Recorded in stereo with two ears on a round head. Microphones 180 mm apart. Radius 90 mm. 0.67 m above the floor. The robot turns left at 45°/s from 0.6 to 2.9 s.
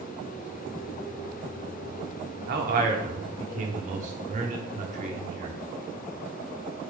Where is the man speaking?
55° right (ahead or behind), 1.2 m; by 5.5 s 40° right (ahead or behind), 1.2 m.